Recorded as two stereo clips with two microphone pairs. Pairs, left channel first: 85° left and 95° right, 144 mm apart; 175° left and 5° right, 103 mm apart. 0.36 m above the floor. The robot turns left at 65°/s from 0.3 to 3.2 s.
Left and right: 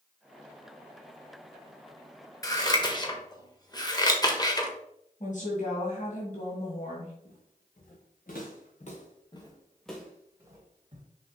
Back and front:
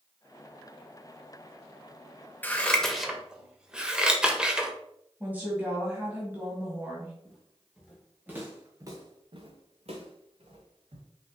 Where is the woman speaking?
65° left, 1.9 m.